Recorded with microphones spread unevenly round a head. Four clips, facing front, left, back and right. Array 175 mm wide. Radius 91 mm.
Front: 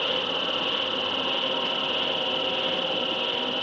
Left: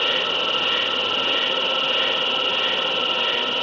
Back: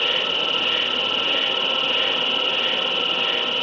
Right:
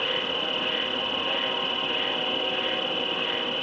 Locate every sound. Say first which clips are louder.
0.0 s an insect: left 5 dB, back 2 dB; 115° left